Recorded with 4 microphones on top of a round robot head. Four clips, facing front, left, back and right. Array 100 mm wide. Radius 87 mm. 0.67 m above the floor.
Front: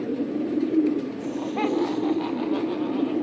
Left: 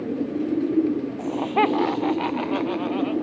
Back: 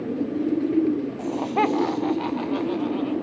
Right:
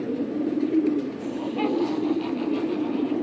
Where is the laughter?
130° left, 2 m; by 3.1 s 90° left, 4 m.